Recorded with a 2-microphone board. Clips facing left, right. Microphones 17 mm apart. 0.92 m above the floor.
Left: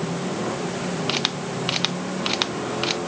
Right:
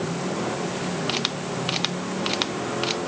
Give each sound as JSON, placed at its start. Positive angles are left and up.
{"t": 1.1, "sound": "a camera shutter", "side_deg": 10}